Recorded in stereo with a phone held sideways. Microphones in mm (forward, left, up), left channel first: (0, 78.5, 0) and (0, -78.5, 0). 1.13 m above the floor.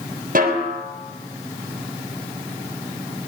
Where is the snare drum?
60° right (ahead or behind), 3.5 m.